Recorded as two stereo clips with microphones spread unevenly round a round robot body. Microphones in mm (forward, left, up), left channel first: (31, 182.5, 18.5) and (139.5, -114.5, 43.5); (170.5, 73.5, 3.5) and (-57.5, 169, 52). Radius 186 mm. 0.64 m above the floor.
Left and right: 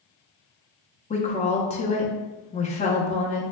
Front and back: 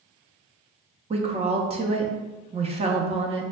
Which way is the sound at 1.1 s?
95° left.